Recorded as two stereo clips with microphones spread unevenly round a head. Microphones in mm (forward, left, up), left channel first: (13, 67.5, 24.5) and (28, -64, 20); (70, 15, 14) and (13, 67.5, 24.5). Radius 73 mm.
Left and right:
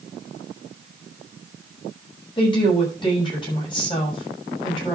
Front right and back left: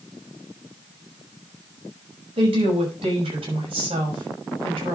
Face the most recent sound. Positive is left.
turn(degrees=155)